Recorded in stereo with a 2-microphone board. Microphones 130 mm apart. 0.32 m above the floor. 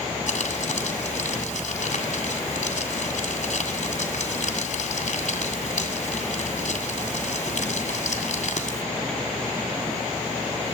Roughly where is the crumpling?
Left.